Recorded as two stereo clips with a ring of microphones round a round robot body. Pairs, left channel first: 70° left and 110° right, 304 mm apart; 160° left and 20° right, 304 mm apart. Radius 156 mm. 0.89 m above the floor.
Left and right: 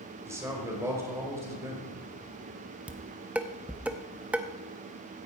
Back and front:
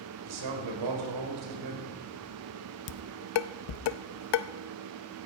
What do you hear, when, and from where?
0.2 s a man speaking: 30° right, 4.5 m
2.9 s dishes clattering: 160° left, 0.6 m